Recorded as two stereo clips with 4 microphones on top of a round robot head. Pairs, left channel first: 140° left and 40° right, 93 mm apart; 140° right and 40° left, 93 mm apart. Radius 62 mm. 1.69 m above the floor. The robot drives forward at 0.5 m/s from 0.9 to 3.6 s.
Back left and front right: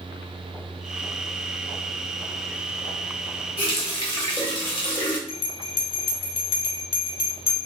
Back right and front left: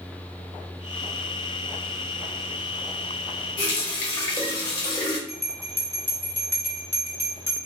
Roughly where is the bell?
Left.